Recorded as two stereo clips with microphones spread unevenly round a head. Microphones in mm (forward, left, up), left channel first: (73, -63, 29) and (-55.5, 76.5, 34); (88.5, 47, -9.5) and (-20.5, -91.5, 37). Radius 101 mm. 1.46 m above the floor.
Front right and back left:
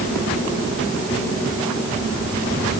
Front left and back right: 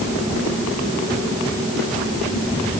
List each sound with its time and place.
Only background noise.